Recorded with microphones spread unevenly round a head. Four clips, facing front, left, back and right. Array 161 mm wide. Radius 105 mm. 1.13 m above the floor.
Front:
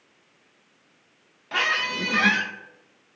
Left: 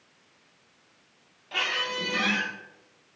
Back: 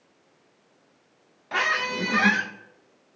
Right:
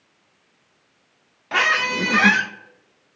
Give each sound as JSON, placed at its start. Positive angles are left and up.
{"t": 1.5, "sound": "a squeak", "azimuth_deg": -70, "distance_m": 0.8}